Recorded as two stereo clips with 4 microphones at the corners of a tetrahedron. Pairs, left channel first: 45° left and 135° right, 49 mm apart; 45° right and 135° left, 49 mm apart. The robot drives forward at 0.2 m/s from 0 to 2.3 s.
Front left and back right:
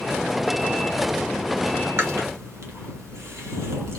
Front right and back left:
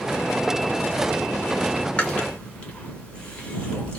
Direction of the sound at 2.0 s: 110° right.